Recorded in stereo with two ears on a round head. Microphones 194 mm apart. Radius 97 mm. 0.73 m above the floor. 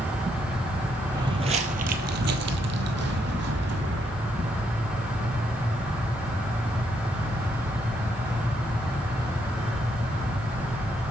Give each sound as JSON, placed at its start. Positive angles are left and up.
{"t": 1.1, "sound": "footsteps", "side_deg": -20, "distance_m": 1.0}